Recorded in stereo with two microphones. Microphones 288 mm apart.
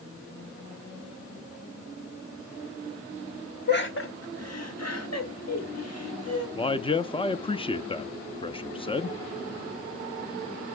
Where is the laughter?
35° left (ahead or behind), 1.4 m; by 6.5 s 60° left (ahead or behind), 4 m.